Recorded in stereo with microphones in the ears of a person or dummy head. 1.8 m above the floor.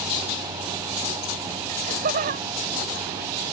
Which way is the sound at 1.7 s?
40° right (ahead or behind).